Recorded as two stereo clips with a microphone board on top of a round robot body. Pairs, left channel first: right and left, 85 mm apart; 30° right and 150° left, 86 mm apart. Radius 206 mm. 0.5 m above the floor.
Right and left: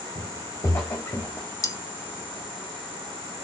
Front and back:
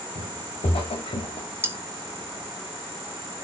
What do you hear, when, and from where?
0.1 s footsteps: 45° right, 1.9 m; by 1.5 s 20° right, 1.9 m
1.6 s cutlery clinking: 145° right, 1.2 m